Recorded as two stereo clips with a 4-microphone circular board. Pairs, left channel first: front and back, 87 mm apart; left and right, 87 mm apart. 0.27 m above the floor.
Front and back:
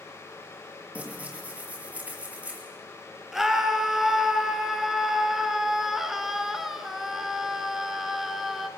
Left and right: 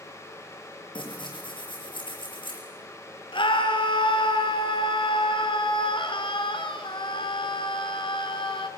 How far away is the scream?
About 3 m.